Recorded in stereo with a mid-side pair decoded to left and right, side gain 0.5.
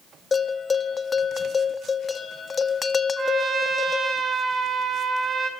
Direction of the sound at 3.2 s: 35° right.